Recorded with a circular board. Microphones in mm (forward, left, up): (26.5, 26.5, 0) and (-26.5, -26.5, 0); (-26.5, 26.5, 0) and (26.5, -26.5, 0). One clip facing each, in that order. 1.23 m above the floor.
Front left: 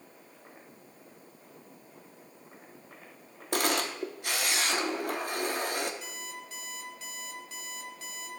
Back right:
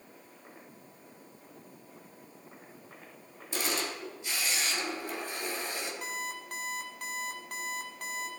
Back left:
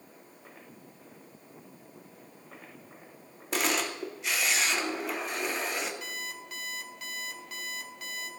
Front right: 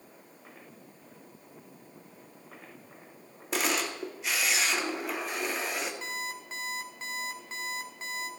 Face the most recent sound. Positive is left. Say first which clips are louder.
# back right 5 dB, front right 3 dB
turn(degrees=-100)